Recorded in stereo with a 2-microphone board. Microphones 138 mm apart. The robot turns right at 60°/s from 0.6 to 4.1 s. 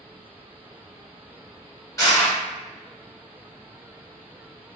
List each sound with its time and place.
2.0 s crushing: 25° left (ahead or behind), 1.8 m; by 2.4 s 10° left (ahead or behind), 1.8 m